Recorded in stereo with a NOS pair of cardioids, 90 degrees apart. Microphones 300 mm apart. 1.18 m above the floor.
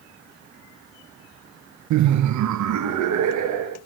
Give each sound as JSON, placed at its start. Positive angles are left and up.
{"t": 1.9, "sound": "laughter", "azimuth_deg": -70, "distance_m": 0.5}